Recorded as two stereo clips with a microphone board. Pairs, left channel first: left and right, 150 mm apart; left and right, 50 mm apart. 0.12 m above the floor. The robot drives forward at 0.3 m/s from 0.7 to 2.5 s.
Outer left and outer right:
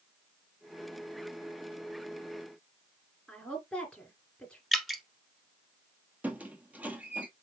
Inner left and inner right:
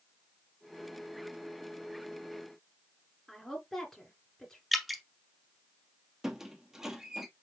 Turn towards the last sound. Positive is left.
turn(degrees=-10)  # may be behind; listen again after turning